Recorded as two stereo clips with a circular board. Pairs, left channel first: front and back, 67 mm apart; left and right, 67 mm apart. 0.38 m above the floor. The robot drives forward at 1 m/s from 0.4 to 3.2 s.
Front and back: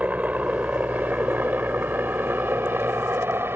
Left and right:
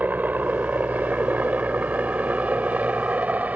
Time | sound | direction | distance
0.0 | a helicopter | 130° right | ?